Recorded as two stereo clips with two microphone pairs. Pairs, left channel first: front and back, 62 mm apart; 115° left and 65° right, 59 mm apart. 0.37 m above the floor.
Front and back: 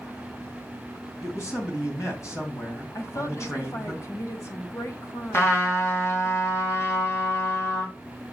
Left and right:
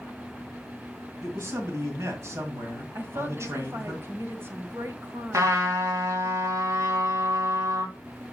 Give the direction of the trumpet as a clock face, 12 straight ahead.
1 o'clock.